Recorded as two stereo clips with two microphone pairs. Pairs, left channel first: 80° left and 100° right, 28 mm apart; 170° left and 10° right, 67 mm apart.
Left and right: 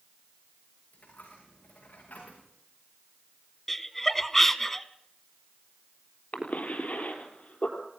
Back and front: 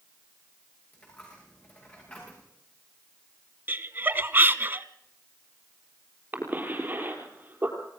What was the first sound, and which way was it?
A dropped coin, 100° left.